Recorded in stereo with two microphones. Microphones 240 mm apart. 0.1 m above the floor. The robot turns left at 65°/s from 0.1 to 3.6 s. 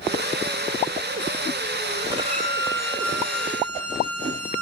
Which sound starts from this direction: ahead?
A violin, at 2.1 s.